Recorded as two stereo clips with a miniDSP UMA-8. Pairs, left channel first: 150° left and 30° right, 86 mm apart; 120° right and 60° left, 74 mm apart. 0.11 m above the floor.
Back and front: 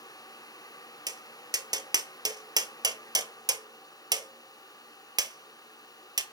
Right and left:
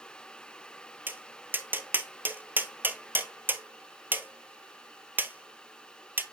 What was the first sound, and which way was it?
Tapping, straight ahead.